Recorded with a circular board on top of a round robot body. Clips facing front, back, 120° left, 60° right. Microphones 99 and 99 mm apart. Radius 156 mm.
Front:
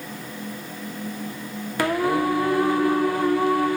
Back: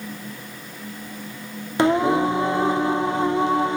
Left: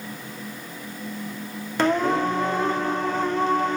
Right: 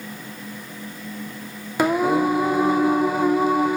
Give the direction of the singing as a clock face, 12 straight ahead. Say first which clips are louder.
Back 4 dB, right 2 dB; 4 o'clock.